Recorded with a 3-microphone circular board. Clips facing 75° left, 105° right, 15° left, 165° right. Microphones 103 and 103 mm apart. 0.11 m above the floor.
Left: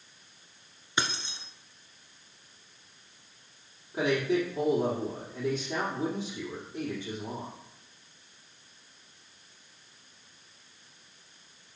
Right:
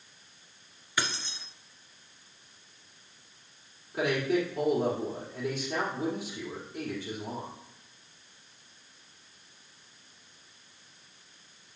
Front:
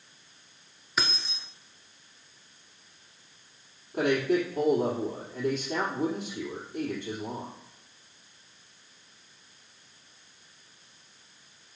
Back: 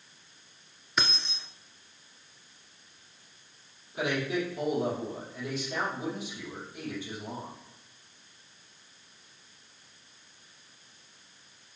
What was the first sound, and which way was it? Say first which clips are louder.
Keys jangling: left 1 dB, even; 105° left.